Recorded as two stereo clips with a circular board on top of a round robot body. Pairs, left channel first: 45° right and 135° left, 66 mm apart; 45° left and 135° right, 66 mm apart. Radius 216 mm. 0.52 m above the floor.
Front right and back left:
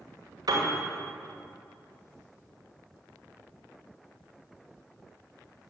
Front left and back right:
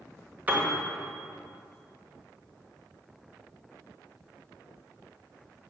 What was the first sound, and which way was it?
A piano, 155° left.